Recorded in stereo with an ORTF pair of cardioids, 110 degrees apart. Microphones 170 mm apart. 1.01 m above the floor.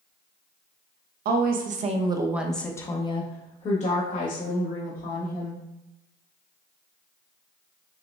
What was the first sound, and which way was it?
A woman speaking, 70° right.